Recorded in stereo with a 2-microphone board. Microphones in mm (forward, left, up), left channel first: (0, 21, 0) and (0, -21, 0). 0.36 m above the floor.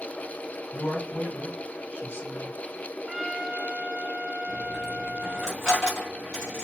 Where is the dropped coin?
15° left (ahead or behind), 1.8 m.